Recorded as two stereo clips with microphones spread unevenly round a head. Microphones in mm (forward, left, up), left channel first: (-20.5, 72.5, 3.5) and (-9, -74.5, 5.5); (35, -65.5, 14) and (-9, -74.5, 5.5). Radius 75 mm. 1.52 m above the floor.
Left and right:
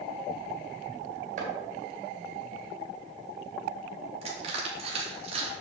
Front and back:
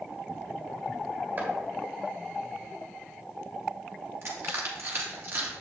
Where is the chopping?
120° right, 3 m.